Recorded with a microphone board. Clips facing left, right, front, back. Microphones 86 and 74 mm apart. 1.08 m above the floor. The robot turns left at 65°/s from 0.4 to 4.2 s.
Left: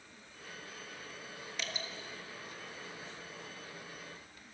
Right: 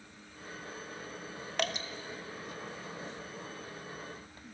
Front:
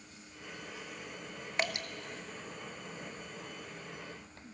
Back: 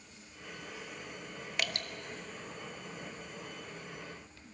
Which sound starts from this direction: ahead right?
Dripping, at 1.6 s.